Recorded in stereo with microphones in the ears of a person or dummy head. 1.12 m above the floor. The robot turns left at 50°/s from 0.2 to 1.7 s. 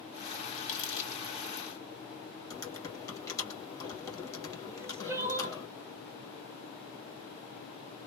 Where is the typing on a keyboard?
20° left (ahead or behind), 2 m.